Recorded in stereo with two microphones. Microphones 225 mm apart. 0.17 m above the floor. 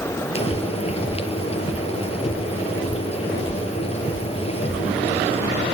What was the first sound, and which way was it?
Frying, 25° left (ahead or behind).